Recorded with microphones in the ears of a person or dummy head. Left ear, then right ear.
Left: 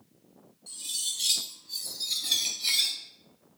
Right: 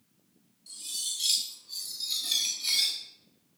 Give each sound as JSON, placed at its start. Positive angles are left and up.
{"t": 0.7, "sound": "cutlery clinking", "side_deg": 15, "distance_m": 0.9}